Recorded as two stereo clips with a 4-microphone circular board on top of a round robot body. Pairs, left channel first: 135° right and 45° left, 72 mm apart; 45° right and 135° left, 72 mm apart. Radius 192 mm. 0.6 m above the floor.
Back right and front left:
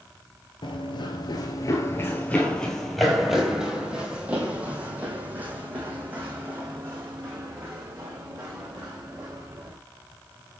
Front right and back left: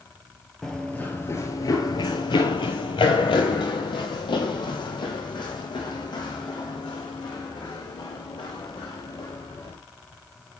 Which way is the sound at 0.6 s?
130° right.